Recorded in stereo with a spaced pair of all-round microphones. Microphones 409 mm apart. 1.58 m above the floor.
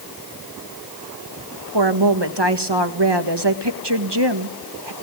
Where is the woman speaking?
80° right, 1.8 m.